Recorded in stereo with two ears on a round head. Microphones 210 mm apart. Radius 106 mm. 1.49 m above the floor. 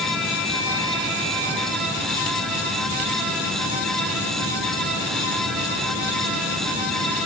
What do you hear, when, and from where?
Only background noise.